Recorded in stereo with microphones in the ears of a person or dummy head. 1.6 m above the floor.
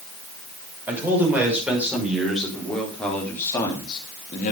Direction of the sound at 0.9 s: 10° right (ahead or behind).